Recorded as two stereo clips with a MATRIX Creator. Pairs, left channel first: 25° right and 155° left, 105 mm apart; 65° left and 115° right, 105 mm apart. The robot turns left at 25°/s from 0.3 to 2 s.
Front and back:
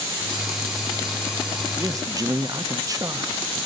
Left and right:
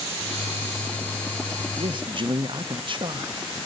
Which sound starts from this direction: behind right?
A man speaking, at 1.8 s.